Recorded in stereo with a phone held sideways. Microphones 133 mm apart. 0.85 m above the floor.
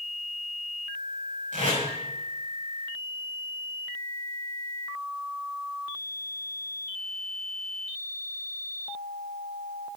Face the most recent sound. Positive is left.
turn(degrees=-75)  # may be behind; listen again after turning